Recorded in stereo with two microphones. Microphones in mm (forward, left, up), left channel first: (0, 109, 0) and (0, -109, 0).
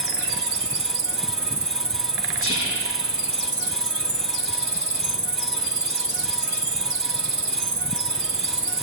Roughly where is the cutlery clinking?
I don't hear cutlery clinking.